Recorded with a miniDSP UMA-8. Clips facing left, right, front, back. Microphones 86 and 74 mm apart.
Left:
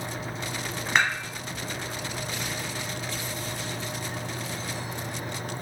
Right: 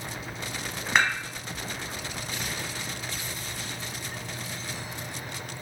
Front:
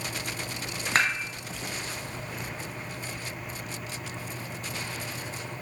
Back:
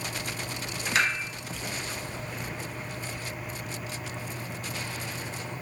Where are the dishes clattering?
Straight ahead, 1.1 m.